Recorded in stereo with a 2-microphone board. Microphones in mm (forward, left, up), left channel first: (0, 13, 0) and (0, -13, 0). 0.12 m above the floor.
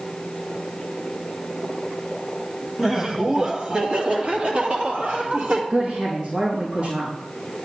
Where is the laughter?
15° right (ahead or behind), 1.7 m; by 5.6 s 55° right (ahead or behind), 4 m.